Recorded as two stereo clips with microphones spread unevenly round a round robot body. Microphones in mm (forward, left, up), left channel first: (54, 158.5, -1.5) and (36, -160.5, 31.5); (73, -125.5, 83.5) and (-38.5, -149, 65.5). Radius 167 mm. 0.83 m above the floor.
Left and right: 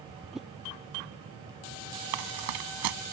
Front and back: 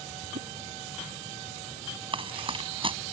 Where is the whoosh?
Straight behind.